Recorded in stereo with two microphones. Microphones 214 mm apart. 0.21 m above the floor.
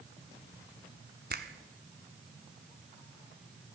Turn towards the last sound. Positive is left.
turn(degrees=-50)  # may be behind; listen again after turning